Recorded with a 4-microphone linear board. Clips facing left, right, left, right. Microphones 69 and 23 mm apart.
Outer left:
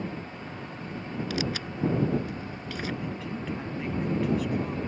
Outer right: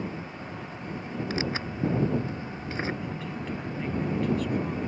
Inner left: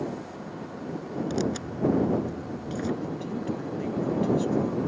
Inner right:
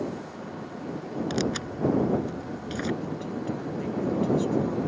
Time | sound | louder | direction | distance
1.3 | tearing paper | outer right 1 dB, inner right 1 dB | 35° right (ahead or behind) | ?
3.0 | a woman speaking | even, even | 5° left (ahead or behind) | ?